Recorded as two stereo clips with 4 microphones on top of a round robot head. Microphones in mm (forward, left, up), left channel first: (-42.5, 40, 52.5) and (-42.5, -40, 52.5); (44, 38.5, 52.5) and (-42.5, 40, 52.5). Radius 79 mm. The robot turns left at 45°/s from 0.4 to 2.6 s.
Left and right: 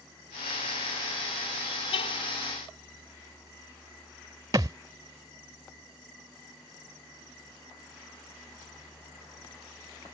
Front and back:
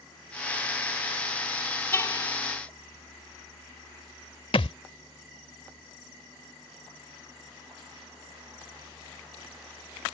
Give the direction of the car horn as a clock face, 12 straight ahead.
10 o'clock.